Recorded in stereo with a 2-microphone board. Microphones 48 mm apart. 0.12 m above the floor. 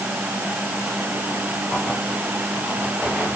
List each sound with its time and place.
Only background noise.